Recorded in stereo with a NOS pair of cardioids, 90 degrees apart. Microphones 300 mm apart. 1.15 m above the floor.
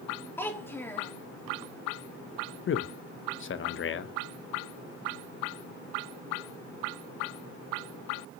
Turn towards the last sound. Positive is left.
turn(degrees=40)